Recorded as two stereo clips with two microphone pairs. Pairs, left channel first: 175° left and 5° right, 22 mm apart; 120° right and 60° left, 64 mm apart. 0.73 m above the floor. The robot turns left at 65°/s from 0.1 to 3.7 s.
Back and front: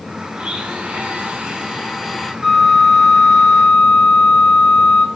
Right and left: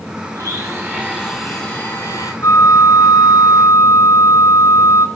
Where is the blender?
40° left, 3.5 m; by 2.3 s 90° right, 3.5 m.